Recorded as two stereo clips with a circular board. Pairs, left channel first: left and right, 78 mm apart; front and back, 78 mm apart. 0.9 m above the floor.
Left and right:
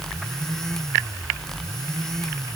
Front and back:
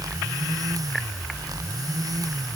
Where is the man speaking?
No man speaking in this recording.